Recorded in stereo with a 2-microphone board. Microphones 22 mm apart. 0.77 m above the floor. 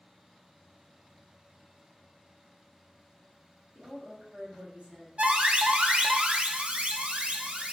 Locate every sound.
3.8 s a woman speaking: 60° right (ahead or behind), 1.5 m
5.2 s an alarm: 55° right (ahead or behind), 0.5 m